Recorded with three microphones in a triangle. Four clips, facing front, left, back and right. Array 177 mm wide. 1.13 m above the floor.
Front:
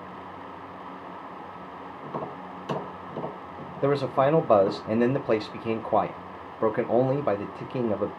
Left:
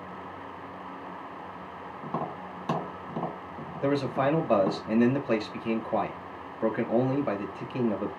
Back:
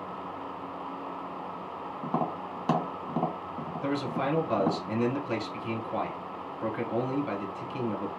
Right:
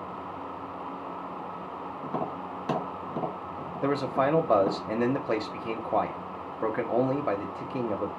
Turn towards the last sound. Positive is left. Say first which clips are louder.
# even, front 8 dB
turn(degrees=-5)